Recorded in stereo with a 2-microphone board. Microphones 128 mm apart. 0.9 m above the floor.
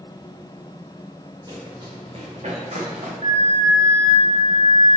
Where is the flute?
80° right, 2 m.